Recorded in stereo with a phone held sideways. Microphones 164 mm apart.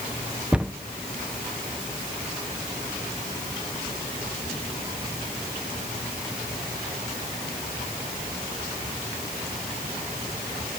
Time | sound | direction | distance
0.5 | a cupboard door | 5° right (ahead or behind) | 0.5 m